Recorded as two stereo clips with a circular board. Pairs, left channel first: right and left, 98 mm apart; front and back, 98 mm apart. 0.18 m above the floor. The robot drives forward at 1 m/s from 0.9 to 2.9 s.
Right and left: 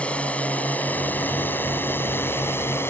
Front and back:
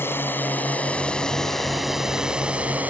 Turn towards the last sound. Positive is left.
turn(degrees=-125)